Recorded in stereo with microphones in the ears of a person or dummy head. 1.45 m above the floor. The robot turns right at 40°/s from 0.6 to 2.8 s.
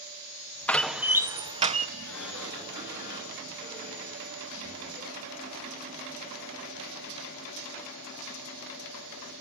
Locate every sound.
0.7 s a door slam: 175° left, 1.7 m; by 1.9 s 140° right, 1.7 m
2.0 s a sliding door: 95° left, 9.5 m; by 4.9 s 125° left, 9.5 m